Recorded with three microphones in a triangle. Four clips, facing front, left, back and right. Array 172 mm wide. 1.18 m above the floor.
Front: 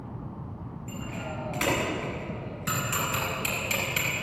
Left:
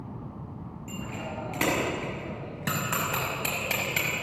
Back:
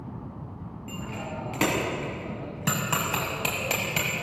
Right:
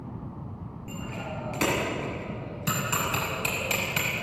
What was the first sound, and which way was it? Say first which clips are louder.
A bicycle bell: even, back 1 dB; 155° left.